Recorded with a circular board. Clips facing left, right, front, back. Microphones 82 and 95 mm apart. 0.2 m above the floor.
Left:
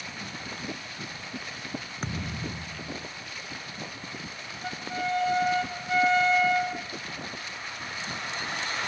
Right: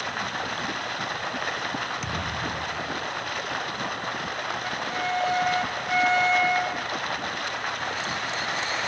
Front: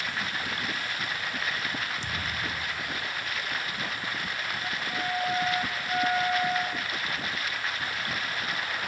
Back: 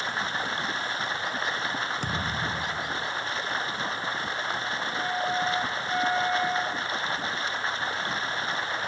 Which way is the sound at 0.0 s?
120° right.